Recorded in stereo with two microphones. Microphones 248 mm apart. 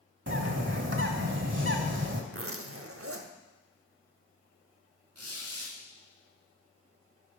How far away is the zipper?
About 0.7 m.